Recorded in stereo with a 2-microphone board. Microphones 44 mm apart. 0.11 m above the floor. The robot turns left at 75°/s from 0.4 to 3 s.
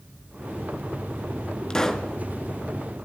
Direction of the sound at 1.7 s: 35° left.